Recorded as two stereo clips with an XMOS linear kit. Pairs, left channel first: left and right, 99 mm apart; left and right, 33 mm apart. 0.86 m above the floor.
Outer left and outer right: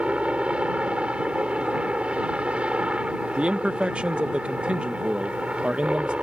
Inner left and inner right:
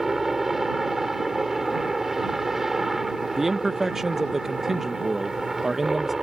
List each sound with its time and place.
0.0 s a helicopter: 10° right (ahead or behind)
3.4 s a man speaking: 10° right (ahead or behind)